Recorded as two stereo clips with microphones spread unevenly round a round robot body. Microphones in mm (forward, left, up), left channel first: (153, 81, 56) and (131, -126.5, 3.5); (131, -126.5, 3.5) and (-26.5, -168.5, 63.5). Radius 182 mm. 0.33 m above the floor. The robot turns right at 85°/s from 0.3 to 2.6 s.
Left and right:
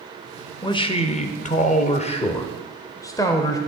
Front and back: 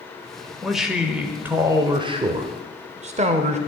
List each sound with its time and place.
0.6 s a man speaking: 5° left, 0.9 m; by 3.6 s 175° left, 0.9 m